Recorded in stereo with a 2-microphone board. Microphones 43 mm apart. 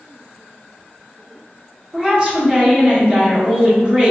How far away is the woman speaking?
About 1.3 m.